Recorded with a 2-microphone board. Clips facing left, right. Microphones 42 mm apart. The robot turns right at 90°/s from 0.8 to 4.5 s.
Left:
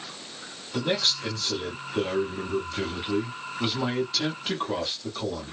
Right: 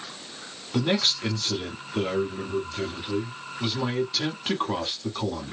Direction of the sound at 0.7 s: 115° right.